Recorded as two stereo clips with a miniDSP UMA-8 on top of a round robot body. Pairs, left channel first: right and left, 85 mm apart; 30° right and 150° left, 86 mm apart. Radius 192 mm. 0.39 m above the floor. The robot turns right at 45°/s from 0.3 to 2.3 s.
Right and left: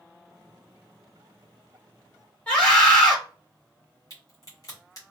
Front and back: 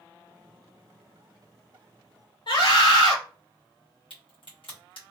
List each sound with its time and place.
2.5 s a scream: 15° right, 2 m
4.1 s a crack: 40° right, 1.9 m